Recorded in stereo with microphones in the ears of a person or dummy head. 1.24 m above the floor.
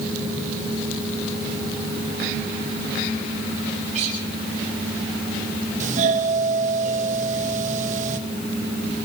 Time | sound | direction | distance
3.9 | a guitar | 40° right (ahead or behind) | 9.5 m
5.8 | a doorbell | 45° right (ahead or behind) | 2 m